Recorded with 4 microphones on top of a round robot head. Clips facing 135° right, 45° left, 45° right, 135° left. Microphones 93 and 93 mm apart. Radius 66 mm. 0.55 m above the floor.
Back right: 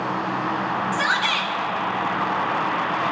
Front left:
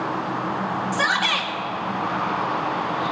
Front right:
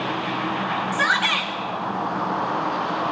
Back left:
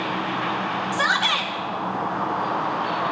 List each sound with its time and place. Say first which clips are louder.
0.9 s a shout: even, even; 75° left, 2.5 m